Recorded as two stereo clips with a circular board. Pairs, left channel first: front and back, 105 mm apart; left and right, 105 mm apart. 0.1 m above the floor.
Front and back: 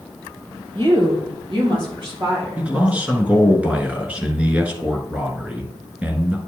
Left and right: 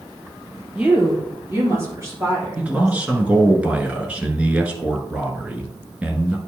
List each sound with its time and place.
0.8 s a woman speaking: 165° right, 2.5 m; by 3.5 s 140° right, 5.5 m
2.6 s a man speaking: 135° right, 1.1 m